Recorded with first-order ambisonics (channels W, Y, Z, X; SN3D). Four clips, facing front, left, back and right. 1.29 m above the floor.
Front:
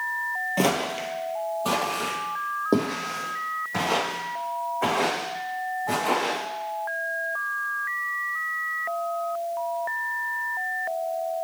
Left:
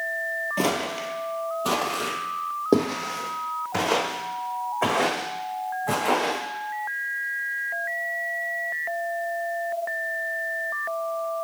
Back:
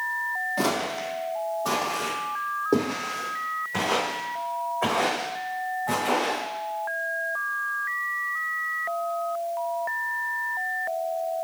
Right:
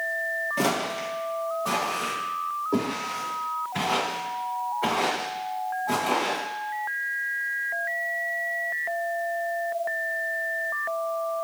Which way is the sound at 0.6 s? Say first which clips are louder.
Left 1 dB, front 5 dB; 15° left.